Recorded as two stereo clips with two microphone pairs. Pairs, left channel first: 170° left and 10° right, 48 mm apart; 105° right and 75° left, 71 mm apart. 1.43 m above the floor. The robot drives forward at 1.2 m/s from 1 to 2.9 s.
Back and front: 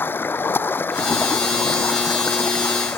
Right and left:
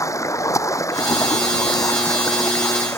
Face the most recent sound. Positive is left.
turn(degrees=-160)